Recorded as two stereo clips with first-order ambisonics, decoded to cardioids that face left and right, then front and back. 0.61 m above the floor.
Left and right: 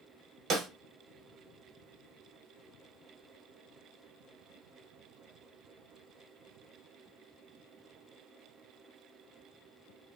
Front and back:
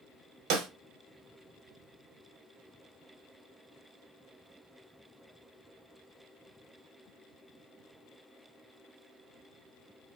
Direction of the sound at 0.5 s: 150° right.